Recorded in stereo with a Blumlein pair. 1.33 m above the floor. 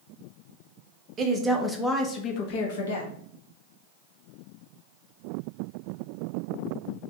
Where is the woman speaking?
25° right, 0.7 m; by 3.1 s 65° left, 0.9 m.